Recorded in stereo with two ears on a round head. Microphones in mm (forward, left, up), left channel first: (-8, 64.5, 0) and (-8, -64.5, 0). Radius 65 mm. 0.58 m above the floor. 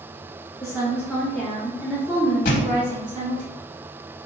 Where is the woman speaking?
25° left (ahead or behind), 1.2 m; by 3.5 s 40° right (ahead or behind), 1.6 m.